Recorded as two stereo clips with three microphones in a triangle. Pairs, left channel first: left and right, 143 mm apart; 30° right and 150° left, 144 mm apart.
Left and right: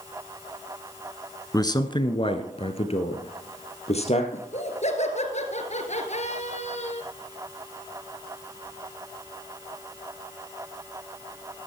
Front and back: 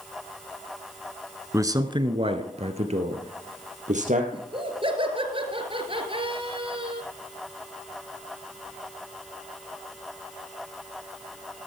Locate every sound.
1.5 s a man speaking: 110° left, 1.1 m; by 4.2 s 130° left, 3 m
4.3 s laughter: 110° left, 2 m